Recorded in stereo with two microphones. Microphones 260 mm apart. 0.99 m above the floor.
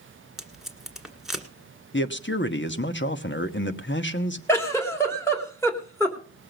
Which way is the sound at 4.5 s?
10° left (ahead or behind).